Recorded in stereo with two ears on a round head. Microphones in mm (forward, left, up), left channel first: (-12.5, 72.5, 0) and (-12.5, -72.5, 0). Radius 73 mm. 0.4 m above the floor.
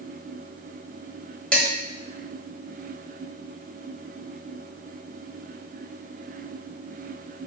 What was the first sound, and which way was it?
Dishes clattering, 5° left (ahead or behind).